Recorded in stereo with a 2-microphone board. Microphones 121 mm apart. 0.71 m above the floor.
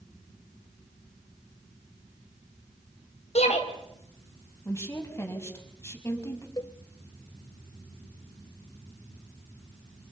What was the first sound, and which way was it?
A shout, 70° left (ahead or behind).